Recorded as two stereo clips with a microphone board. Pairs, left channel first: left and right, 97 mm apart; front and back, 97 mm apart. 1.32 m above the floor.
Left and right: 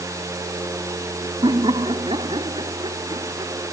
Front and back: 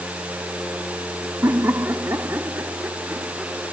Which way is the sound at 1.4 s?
120° right.